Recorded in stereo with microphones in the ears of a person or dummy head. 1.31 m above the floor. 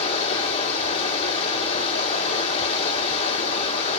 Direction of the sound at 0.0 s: 30° left (ahead or behind).